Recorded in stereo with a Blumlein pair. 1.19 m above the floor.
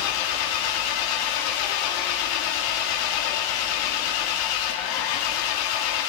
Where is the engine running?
45° left, 1.4 m.